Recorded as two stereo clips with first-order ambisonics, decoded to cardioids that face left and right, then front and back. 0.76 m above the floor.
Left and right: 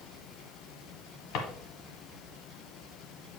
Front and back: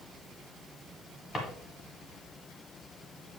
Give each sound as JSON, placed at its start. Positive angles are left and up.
{"t": 1.3, "sound": "a drawer", "azimuth_deg": 70, "distance_m": 1.5}